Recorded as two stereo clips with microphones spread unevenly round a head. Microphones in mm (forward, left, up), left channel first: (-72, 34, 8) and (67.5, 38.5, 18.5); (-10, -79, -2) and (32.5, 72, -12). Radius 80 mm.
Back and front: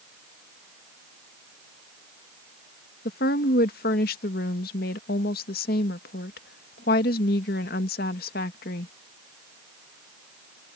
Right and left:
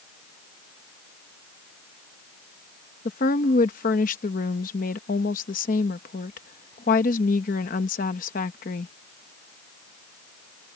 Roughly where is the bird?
No bird in this recording.